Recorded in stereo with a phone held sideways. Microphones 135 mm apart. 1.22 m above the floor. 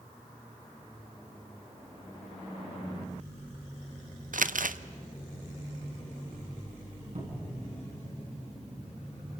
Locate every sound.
4.3 s crumpling: 75° right (ahead or behind), 0.7 m
7.2 s a cupboard door: 60° right (ahead or behind), 8 m